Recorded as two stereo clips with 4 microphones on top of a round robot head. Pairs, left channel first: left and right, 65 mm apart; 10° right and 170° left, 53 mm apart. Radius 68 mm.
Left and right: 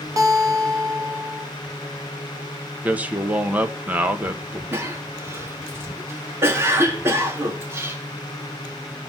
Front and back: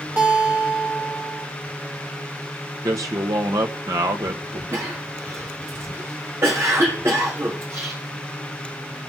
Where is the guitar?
125° right, 3 m.